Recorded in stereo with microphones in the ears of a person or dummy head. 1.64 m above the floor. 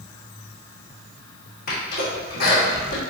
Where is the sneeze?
50° left (ahead or behind), 1.3 m.